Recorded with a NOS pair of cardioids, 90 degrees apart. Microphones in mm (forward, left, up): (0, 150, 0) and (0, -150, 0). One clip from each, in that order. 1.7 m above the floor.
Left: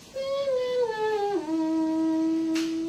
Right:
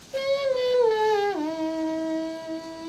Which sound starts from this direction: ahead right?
Singing, at 0.1 s.